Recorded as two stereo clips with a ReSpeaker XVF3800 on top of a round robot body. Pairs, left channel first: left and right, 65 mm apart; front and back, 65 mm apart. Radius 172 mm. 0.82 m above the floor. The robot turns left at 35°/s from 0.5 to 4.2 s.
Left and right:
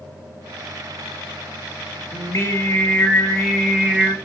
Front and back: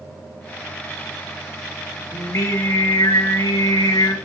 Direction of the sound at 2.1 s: 45° left.